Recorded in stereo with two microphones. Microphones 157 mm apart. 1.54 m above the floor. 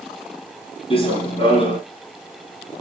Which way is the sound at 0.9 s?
35° left (ahead or behind).